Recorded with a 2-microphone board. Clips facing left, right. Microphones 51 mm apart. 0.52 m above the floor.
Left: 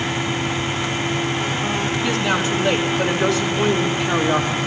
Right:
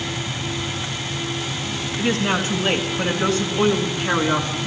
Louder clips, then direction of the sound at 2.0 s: Right 2 dB; 35° right (ahead or behind).